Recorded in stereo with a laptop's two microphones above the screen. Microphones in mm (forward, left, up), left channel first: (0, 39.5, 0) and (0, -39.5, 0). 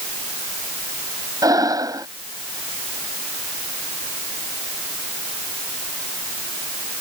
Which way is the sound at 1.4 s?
50° right (ahead or behind).